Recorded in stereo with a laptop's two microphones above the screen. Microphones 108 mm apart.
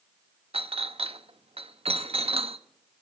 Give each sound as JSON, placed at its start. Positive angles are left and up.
{"t": 0.5, "sound": "a clink", "side_deg": -70, "distance_m": 0.5}